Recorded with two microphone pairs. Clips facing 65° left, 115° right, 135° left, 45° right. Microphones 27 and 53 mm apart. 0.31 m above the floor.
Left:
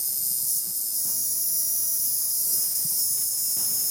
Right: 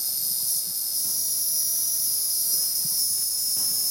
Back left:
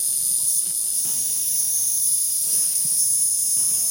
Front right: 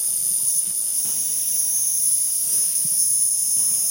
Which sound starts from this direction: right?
An insect, at 0.0 s.